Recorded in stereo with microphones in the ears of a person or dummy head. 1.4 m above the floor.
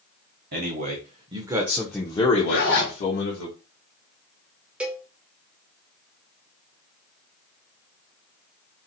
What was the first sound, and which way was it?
A man speaking, 55° right (ahead or behind).